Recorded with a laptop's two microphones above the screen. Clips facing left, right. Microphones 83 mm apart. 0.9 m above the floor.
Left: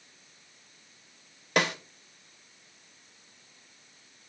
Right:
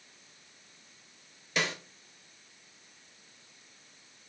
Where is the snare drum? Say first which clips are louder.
Left 6 dB; 60° left (ahead or behind), 1.2 m.